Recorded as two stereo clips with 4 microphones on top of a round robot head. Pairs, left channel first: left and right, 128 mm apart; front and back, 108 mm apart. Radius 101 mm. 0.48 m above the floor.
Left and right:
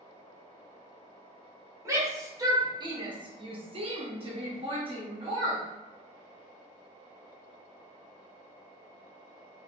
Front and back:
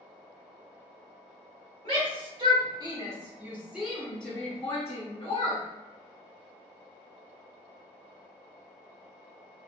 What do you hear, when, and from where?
1.9 s a shout: 155° right, 1.9 m; by 5.6 s 40° right, 1.7 m